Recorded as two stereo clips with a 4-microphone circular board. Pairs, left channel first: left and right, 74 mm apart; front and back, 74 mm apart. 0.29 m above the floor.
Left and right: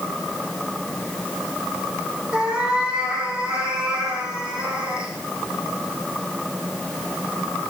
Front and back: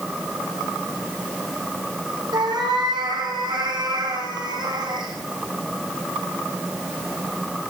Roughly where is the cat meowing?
Behind.